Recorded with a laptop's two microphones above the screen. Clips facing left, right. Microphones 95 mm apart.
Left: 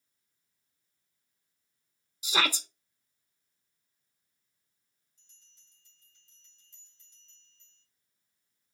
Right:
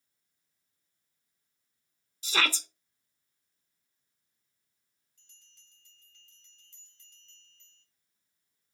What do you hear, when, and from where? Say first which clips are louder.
2.2 s a shout: left 1 dB; 15° left (ahead or behind), 1.0 m
5.2 s a bell: right 6 dB; 70° right (ahead or behind), 2 m